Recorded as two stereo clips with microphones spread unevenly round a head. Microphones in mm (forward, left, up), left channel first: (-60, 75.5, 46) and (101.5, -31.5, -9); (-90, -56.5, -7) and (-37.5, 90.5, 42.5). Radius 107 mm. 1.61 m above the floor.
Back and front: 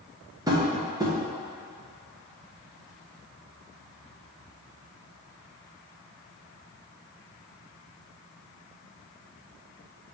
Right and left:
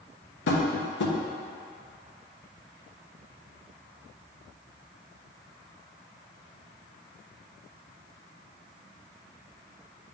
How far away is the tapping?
About 1.2 m.